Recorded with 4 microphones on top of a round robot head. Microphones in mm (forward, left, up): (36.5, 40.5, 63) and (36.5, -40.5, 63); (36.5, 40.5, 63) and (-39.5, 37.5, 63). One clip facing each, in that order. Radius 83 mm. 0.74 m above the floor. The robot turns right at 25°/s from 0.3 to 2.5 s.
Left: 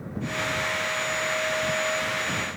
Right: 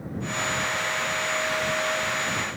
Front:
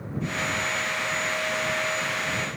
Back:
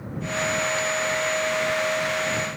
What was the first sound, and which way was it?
Only background noise.